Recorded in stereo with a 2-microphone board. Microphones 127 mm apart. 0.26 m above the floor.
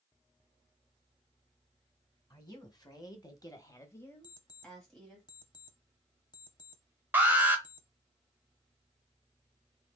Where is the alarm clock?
35° left (ahead or behind), 0.7 m.